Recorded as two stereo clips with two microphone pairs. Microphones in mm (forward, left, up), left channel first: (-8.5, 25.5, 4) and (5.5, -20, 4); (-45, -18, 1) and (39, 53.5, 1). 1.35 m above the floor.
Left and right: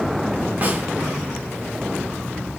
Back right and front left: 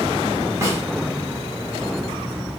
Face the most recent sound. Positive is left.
turn(degrees=-20)